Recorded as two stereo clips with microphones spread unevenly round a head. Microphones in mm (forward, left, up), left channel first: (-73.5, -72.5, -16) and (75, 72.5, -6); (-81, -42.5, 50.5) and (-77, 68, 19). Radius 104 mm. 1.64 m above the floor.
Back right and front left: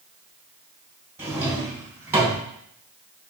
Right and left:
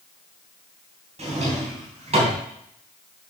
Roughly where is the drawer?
Behind left.